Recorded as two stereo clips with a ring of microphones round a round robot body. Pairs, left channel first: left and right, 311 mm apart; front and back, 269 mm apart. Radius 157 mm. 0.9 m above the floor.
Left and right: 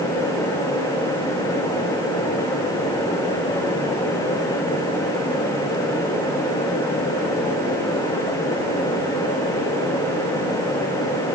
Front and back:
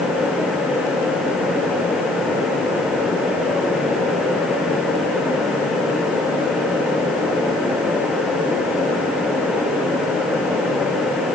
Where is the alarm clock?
No alarm clock in this recording.